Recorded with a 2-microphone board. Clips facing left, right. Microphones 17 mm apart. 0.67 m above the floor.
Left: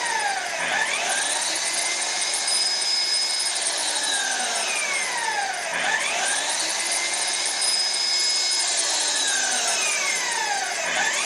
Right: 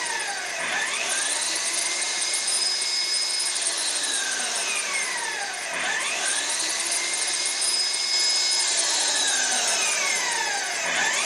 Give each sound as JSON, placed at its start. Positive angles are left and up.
{"t": 0.0, "sound": "an engine running", "side_deg": 60, "distance_m": 2.0}